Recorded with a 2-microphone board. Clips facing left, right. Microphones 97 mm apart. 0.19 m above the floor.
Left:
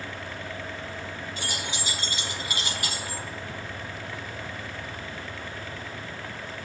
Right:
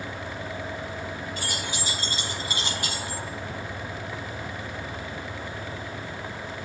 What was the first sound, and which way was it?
Keys jangling, 50° right (ahead or behind).